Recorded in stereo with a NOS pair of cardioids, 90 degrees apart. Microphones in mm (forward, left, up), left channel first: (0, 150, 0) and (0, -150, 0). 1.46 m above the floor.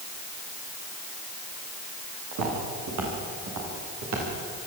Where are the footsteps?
70° right, 8.5 m; by 4.2 s 60° right, 9.5 m.